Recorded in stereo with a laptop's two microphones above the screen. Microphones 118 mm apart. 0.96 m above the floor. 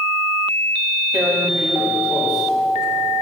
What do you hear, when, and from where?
1.1 s tearing paper: 5° right (ahead or behind), 2.5 m